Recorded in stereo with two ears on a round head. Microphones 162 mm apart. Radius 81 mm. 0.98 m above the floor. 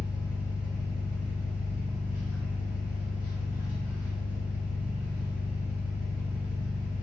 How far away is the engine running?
About 1.7 m.